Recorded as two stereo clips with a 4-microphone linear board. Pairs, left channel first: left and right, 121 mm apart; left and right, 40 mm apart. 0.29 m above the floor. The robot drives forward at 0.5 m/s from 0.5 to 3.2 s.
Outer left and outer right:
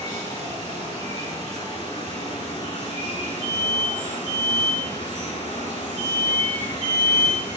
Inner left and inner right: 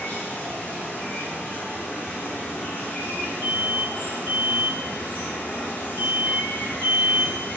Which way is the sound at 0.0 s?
30° left (ahead or behind).